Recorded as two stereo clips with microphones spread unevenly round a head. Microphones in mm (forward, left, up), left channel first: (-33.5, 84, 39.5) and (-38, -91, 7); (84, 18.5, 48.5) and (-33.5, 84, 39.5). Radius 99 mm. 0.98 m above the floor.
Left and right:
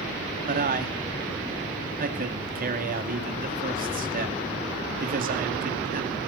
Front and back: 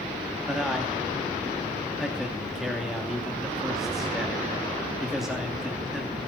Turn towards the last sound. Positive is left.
turn(degrees=-125)